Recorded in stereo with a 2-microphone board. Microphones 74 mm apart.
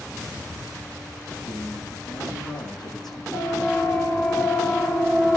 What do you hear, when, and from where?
1.4 s a man speaking: 60° left (ahead or behind), 9 m
3.3 s a siren: 50° left (ahead or behind), 3.5 m; by 5.4 s 5° left (ahead or behind), 2 m